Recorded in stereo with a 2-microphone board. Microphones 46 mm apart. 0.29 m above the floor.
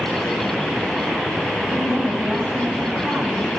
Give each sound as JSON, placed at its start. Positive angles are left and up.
{"t": 1.6, "sound": "a woman speaking", "side_deg": -45, "distance_m": 1.8}